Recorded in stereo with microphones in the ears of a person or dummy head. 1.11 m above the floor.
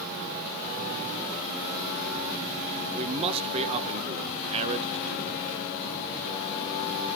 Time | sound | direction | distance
2.9 | a man speaking | 25° right (ahead or behind) | 0.7 m